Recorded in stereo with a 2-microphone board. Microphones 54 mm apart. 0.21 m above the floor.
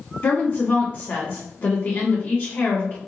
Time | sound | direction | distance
0.2 | a woman speaking | 45° left (ahead or behind) | 1.8 m